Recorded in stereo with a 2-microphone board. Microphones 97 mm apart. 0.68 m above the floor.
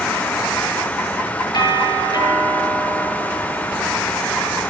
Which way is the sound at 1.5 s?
50° left (ahead or behind).